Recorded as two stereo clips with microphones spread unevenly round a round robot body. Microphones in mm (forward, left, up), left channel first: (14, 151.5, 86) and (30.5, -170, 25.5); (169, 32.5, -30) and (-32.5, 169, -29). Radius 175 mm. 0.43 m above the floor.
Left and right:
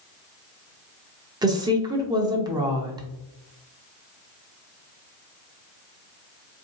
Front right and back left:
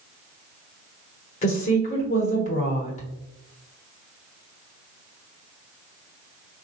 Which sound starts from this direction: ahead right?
A woman speaking, at 1.4 s.